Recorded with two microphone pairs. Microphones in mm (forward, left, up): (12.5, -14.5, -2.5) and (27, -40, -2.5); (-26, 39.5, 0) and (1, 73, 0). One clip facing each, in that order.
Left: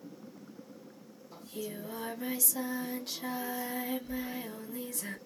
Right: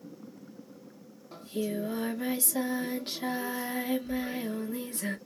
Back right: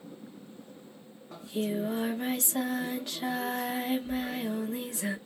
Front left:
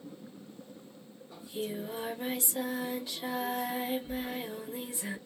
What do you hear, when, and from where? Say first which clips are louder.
1.3 s singing: right 8 dB, back right 5 dB; 105° right, 0.8 m